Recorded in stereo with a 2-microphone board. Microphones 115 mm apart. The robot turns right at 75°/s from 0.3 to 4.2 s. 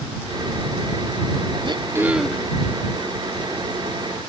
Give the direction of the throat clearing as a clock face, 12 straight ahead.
2 o'clock.